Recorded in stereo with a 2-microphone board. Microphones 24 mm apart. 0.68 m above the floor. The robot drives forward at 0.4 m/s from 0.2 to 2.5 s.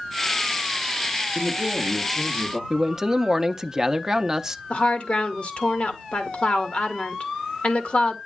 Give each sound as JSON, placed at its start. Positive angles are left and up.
{"t": 1.4, "sound": "a man speaking", "side_deg": -15, "distance_m": 1.1}
{"t": 2.7, "sound": "a man speaking", "side_deg": -25, "distance_m": 0.6}
{"t": 4.7, "sound": "a woman speaking", "side_deg": 45, "distance_m": 1.2}